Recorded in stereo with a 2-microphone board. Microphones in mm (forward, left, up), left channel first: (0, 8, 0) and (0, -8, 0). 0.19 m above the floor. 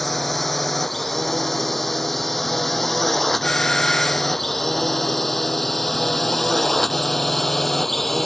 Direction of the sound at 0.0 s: 10° left (ahead or behind).